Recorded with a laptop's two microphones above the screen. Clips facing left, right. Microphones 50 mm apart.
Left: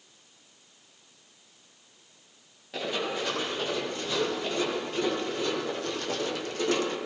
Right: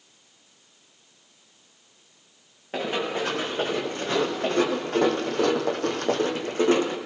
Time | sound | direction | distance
2.7 | running footsteps | 35° right (ahead or behind) | 5 m